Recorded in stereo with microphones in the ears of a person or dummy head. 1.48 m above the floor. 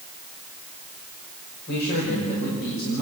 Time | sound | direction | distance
1.7 | a man speaking | 60° left (ahead or behind) | 6 m